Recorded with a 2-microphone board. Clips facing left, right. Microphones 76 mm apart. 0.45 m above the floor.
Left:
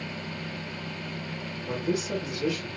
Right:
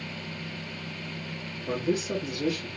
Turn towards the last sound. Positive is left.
turn(degrees=-30)  # may be behind; listen again after turning